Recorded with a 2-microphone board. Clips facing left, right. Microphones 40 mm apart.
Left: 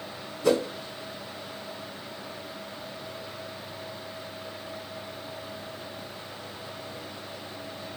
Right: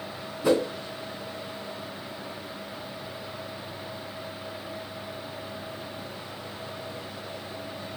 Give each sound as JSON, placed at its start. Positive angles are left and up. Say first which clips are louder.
{"t": 0.4, "sound": "a whoosh", "louder": "right 1 dB", "side_deg": -10, "distance_m": 1.2}